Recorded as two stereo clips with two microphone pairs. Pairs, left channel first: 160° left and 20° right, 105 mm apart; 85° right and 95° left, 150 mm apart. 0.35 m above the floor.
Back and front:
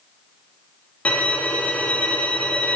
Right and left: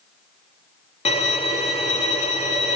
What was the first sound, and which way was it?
A violin, 125° right.